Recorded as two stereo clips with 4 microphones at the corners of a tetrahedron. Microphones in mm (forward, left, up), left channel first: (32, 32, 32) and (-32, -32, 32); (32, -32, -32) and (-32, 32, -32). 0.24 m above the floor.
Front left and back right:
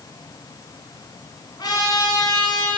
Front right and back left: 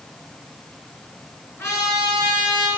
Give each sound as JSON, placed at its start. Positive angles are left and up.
{"t": 1.6, "sound": "a trumpet", "azimuth_deg": 10, "distance_m": 3.0}